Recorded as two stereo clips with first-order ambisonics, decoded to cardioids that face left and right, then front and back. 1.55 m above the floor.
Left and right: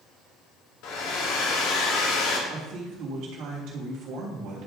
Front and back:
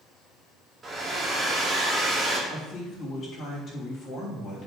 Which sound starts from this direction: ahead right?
A woman speaking, at 2.5 s.